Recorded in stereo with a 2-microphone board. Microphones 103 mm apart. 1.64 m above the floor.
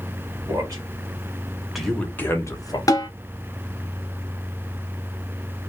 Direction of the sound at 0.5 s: 35° right (ahead or behind).